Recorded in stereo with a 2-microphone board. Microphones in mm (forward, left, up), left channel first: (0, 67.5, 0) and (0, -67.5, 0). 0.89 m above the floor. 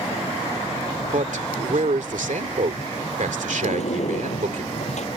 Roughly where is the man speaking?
Right.